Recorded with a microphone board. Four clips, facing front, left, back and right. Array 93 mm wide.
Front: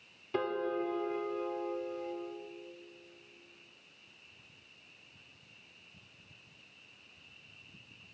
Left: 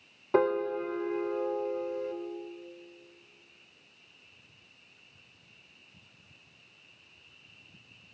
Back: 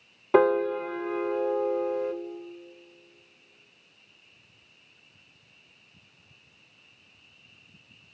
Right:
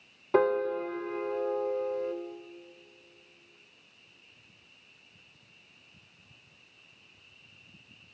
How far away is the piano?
About 0.9 m.